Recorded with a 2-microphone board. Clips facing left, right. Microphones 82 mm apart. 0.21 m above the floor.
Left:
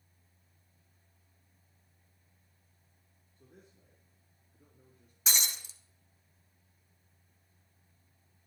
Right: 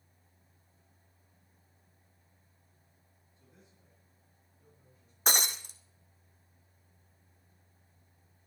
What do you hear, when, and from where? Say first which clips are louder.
3.4 s a man speaking: left 4 dB; 50° left (ahead or behind), 5 m; by 5.2 s 60° left (ahead or behind), 4.5 m
5.3 s breaking glass: right 6 dB; 55° right (ahead or behind), 1.3 m